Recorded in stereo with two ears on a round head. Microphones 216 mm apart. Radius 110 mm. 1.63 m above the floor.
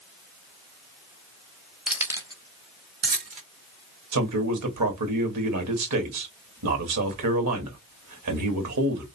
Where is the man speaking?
75° right (ahead or behind), 1.7 m.